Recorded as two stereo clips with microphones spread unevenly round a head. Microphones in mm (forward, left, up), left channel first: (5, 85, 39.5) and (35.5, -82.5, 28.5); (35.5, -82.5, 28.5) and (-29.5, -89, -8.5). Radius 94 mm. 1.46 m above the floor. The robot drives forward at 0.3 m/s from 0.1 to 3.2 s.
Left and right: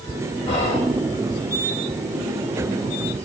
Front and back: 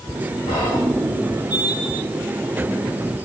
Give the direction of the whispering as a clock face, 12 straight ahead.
11 o'clock.